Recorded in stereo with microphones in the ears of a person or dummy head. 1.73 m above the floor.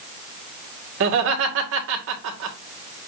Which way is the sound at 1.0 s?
70° right (ahead or behind).